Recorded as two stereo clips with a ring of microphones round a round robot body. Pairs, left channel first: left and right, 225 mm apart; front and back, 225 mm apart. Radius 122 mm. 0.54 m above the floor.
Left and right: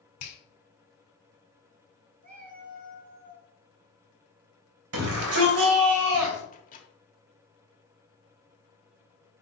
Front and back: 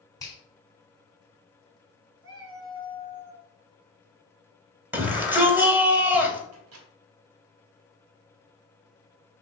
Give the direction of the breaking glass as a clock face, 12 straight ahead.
I don't hear breaking glass.